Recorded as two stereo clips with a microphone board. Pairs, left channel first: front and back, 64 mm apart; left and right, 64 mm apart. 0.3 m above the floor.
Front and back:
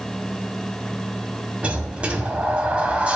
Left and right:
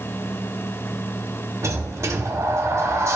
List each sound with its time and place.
1.6 s a sliding door: 115° right, 0.9 m